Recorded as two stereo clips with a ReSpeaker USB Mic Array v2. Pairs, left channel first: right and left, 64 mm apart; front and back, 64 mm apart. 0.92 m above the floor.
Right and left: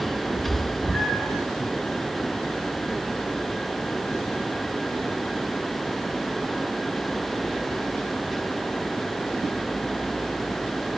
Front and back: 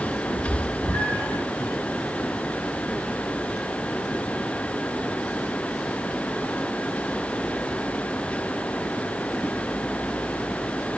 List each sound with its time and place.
0.3 s a cat meowing: 15° right, 3.5 m; by 1.4 s 10° right, 4.5 m